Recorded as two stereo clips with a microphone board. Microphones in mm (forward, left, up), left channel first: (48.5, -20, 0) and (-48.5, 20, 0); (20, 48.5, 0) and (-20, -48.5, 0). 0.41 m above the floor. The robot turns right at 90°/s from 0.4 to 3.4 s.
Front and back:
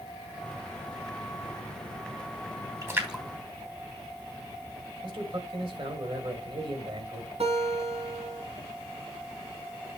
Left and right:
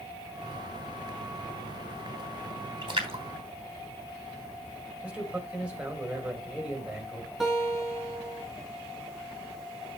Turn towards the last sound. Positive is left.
turn(degrees=160)